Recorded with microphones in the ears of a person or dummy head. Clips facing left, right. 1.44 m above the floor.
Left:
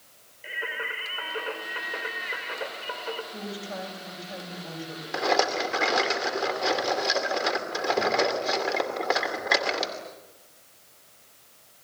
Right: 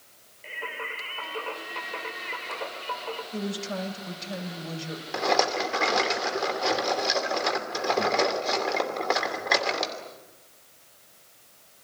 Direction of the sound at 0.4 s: 15° left (ahead or behind).